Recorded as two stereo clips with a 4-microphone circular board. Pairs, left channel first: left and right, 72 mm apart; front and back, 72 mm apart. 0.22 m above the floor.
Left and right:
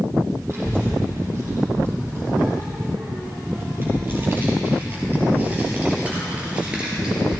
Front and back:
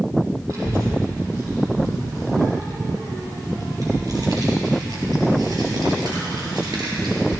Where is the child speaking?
140° right, 6 m; by 7.4 s 170° right, 3 m.